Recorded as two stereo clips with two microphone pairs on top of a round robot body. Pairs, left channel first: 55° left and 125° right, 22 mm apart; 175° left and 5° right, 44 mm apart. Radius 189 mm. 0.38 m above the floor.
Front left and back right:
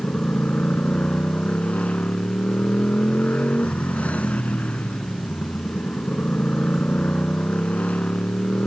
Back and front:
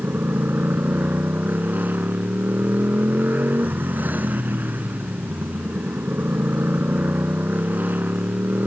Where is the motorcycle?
40° left.